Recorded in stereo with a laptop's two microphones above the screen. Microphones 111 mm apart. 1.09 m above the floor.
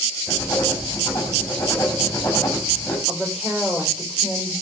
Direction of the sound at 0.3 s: 25° left (ahead or behind).